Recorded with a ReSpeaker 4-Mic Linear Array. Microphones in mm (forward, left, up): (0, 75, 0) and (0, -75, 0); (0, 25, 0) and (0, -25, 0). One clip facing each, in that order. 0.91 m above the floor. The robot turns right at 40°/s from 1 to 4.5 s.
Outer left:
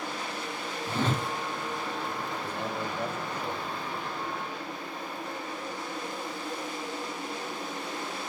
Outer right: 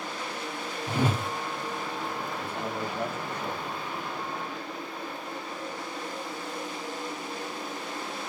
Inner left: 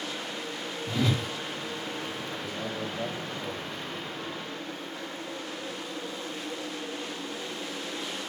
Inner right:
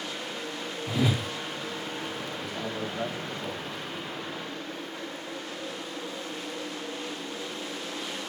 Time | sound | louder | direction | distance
0.9 | a whoosh | outer right 2 dB, inner right 1 dB | 10° right (ahead or behind) | 0.5 m
2.4 | a man speaking | outer right 1 dB, inner right 1 dB | 115° right | 1.6 m